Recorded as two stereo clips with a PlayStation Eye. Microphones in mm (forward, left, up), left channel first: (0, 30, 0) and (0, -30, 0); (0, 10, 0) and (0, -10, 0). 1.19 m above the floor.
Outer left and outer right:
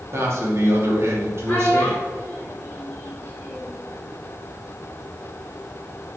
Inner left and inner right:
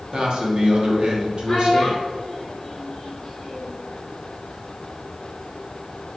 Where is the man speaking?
50° right (ahead or behind), 2.5 m.